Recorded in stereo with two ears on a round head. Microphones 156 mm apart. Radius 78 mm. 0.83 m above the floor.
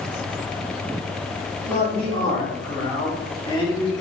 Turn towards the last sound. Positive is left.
turn(degrees=25)  # may be behind; listen again after turning